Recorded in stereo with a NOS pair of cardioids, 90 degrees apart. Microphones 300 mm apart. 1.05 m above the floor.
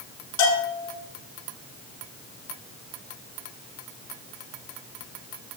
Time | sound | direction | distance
0.4 | a bell | 65° left | 5.5 m